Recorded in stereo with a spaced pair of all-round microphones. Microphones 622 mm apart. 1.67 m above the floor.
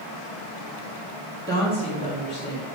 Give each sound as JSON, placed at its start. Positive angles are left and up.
{"t": 1.5, "sound": "a woman speaking", "side_deg": 5, "distance_m": 2.5}